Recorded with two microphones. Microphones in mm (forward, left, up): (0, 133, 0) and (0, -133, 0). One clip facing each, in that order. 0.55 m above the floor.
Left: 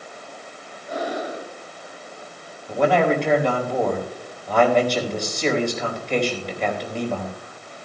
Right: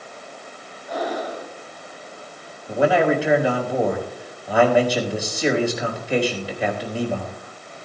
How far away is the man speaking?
About 3.5 m.